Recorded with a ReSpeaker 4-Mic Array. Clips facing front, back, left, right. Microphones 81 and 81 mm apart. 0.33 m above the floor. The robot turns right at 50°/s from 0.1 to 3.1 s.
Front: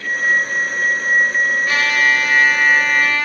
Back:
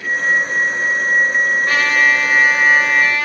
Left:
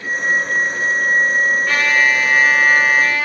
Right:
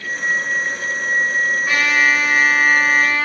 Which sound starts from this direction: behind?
A trumpet, at 1.7 s.